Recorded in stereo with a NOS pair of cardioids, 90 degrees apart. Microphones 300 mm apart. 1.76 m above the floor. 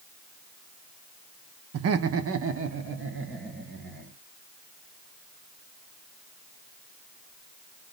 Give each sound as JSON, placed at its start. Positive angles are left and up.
{"t": 1.7, "sound": "laughter", "azimuth_deg": -60, "distance_m": 0.8}